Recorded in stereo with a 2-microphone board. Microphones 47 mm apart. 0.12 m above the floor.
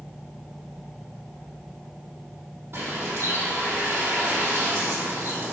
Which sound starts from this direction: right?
A bird, at 2.7 s.